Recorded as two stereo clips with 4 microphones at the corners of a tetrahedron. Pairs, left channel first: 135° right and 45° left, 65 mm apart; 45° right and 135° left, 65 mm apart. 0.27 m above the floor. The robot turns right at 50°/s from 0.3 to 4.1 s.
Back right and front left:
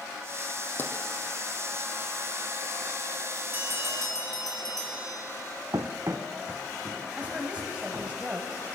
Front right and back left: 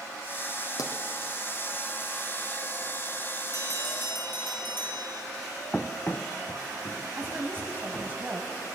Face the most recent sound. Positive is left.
turn(degrees=100)